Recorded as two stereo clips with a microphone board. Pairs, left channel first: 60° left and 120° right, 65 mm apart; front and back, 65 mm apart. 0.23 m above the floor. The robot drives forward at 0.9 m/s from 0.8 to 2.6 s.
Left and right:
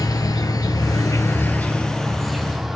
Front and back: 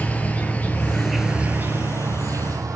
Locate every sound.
0.0 s an insect: 65° left, 0.7 m; by 2.8 s 155° left, 1.5 m